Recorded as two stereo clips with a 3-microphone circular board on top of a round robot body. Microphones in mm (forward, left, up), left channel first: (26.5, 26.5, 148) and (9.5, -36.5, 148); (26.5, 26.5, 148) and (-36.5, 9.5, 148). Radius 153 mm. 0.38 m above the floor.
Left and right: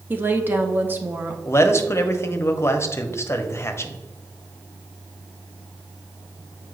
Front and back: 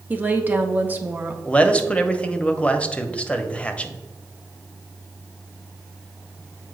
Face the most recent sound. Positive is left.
turn(degrees=75)